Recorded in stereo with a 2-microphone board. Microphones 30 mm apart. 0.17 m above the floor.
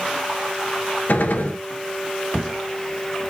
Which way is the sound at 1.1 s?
70° left (ahead or behind).